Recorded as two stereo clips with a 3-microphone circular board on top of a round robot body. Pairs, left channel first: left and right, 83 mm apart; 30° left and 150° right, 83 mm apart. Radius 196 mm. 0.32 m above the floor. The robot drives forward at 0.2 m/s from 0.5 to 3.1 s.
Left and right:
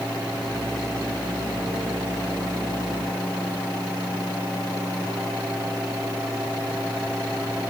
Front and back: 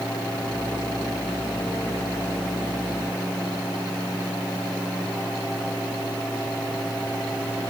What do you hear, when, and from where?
Only background noise.